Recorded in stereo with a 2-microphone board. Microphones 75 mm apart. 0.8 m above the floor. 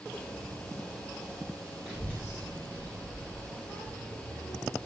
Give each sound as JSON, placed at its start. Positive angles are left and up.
{"t": 1.9, "sound": "a child speaking", "side_deg": -15, "distance_m": 2.5}